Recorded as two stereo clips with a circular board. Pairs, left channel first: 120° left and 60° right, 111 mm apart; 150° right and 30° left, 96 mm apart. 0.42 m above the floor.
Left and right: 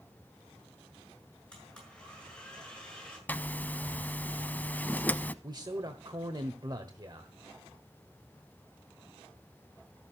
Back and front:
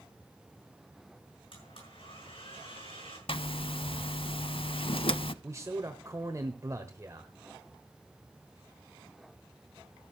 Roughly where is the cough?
I don't hear a cough.